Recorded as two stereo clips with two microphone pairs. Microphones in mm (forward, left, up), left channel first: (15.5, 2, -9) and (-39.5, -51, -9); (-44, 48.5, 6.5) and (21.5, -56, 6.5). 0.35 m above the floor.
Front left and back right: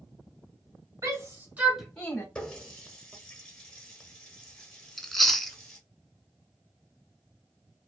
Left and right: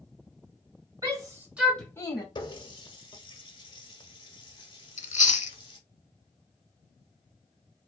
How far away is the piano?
I don't hear a piano.